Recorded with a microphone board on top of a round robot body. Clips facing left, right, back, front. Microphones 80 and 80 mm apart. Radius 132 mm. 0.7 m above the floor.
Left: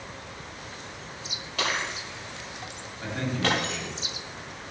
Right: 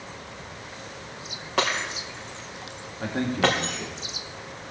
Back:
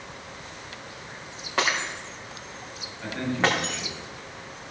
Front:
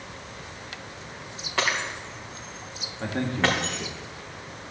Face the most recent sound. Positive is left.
turn(degrees=-45)